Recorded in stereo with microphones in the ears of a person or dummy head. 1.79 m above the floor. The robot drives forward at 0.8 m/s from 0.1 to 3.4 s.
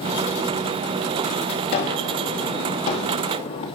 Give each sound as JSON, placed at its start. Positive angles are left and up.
{"t": 1.7, "sound": "a gunshot", "side_deg": 50, "distance_m": 2.5}